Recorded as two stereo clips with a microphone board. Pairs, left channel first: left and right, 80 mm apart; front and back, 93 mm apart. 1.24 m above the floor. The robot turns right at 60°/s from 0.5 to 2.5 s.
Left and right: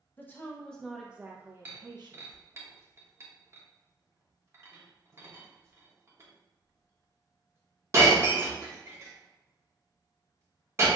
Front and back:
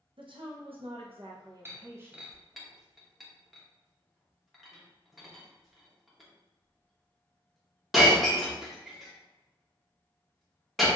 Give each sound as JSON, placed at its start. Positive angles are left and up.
{"t": 0.2, "sound": "a woman speaking", "azimuth_deg": 155, "distance_m": 0.6}
{"t": 1.6, "sound": "breaking glass", "azimuth_deg": -140, "distance_m": 0.9}